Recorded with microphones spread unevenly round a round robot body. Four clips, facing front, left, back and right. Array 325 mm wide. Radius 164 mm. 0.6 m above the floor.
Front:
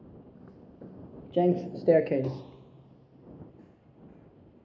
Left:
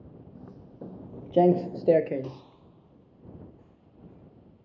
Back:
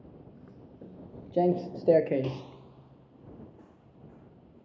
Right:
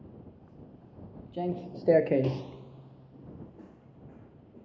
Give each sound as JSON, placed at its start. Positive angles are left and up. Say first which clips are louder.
{"t": 0.3, "sound": "footsteps", "louder": "left 7 dB, front 1 dB", "azimuth_deg": 85}